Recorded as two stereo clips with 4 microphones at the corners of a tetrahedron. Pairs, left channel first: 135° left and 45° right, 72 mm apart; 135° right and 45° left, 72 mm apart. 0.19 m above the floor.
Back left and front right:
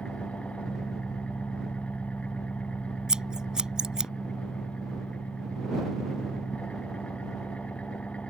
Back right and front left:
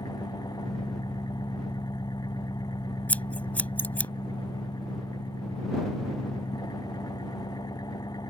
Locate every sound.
0.0 s an engine running: 150° right
3.1 s scissors: 110° right